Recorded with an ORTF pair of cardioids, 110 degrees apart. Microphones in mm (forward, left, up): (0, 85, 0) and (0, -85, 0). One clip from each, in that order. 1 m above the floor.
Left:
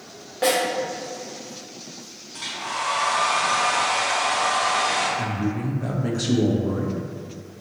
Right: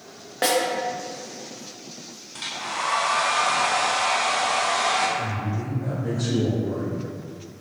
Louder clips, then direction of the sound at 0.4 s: Left 1 dB; 35° right.